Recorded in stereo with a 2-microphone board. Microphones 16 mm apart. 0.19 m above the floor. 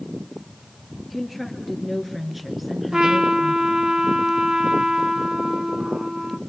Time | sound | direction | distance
1.1 | a woman speaking | centre (ahead or behind) | 4 m
2.9 | a trumpet | 50° right (ahead or behind) | 1.2 m